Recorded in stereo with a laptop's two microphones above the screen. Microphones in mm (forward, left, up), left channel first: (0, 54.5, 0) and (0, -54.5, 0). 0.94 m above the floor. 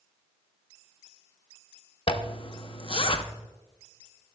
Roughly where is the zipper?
Left.